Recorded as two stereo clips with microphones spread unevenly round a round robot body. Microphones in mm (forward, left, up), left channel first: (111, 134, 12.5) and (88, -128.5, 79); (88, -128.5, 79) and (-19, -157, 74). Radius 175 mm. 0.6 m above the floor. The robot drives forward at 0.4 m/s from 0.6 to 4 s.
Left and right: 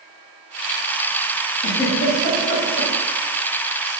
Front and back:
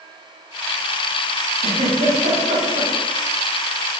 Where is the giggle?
155° left, 0.9 m; by 2.9 s 165° left, 1.4 m.